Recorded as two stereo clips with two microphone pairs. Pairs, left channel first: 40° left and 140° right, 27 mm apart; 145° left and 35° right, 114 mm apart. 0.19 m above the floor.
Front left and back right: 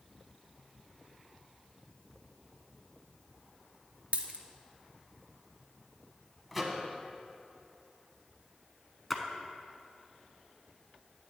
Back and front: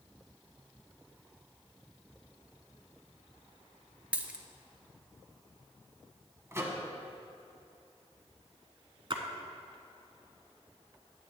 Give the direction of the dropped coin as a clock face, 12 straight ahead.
4 o'clock.